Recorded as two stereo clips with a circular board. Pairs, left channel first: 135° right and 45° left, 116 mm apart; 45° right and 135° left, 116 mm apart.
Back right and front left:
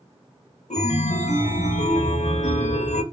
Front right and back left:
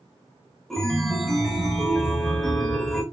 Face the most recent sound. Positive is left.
turn(degrees=-135)